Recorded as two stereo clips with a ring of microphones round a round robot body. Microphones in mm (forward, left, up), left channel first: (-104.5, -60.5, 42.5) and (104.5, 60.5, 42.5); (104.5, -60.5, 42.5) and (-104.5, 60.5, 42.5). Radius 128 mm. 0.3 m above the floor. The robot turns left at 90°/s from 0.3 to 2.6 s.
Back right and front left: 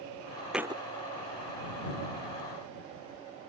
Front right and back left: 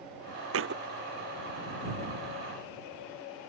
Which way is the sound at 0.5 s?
120° left.